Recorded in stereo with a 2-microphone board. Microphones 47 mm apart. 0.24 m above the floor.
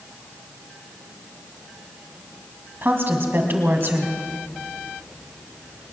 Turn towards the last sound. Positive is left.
turn(degrees=-50)  # may be behind; listen again after turning